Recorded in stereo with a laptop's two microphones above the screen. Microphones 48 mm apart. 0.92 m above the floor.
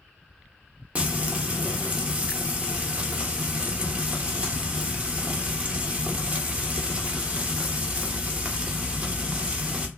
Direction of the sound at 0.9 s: 30° right (ahead or behind).